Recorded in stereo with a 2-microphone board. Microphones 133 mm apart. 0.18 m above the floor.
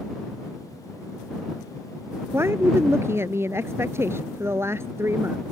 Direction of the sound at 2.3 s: 20° right (ahead or behind).